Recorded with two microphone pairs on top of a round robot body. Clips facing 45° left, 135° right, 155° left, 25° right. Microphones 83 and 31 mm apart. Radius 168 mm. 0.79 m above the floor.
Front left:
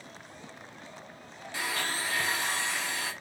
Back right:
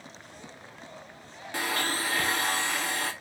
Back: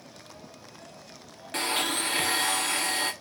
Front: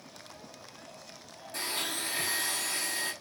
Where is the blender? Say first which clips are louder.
Back right 3 dB, back 7 dB; 175° right, 0.7 m.